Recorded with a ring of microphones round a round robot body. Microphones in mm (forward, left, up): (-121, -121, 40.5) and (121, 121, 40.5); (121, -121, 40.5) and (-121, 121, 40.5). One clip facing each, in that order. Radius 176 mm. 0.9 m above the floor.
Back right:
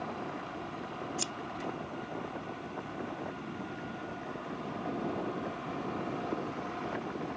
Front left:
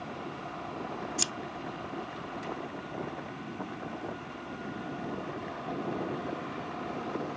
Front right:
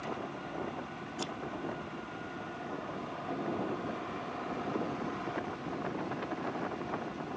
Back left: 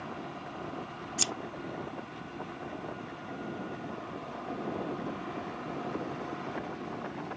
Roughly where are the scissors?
Behind left.